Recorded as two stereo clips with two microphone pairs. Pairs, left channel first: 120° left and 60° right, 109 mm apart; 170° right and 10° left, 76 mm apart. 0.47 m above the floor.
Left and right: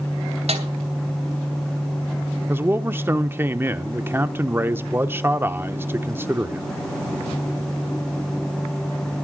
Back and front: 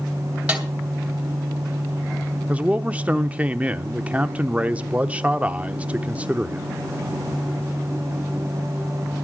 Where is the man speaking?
50° right, 0.7 m.